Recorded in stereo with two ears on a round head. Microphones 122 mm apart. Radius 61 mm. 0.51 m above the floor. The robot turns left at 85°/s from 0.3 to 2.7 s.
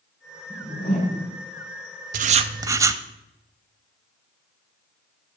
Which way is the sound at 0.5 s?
170° left.